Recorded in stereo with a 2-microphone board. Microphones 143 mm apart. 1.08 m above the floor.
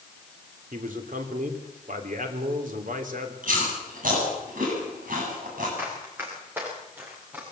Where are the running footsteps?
15° right (ahead or behind), 7 m.